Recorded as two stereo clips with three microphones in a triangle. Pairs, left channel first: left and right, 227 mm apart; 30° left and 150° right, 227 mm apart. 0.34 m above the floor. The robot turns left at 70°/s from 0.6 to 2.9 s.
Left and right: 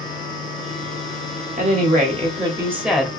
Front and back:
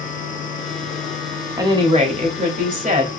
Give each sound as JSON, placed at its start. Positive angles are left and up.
{"t": 1.6, "sound": "a woman speaking", "azimuth_deg": -85, "distance_m": 1.2}